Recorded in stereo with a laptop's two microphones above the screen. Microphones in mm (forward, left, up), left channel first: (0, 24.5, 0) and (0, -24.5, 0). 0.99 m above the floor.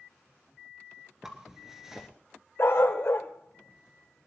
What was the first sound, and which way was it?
A zipper, 10° right (ahead or behind).